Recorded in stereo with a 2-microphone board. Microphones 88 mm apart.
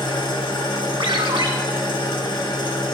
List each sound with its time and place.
0.0 s an engine running: 65° left (ahead or behind), 1.6 m
1.0 s a ringtone: 80° right, 1.5 m